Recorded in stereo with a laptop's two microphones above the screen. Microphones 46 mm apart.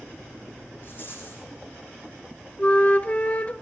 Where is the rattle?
45° left (ahead or behind), 6.5 m.